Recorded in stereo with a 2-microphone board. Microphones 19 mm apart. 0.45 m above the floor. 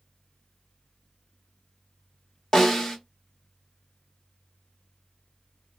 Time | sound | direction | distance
2.5 | a snare drum | 30° left (ahead or behind) | 1.4 m